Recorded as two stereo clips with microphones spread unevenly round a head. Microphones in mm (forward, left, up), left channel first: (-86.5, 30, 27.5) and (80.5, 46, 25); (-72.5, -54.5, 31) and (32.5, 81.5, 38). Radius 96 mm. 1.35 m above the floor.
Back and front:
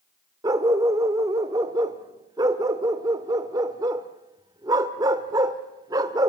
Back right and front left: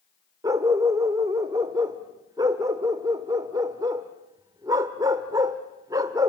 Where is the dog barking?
30° left, 1.0 m.